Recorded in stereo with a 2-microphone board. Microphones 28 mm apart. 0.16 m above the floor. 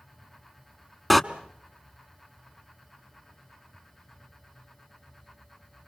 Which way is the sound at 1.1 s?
Centre (ahead or behind).